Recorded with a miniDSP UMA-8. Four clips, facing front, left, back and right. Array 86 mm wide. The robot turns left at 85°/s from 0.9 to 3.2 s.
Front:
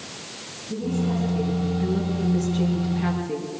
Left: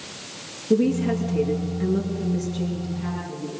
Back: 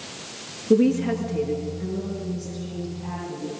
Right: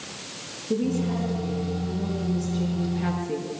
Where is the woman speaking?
165° left, 7 m; by 3.5 s 30° right, 7 m.